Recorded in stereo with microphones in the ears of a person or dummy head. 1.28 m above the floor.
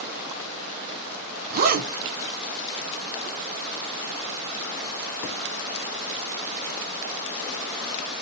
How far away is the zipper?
About 0.6 m.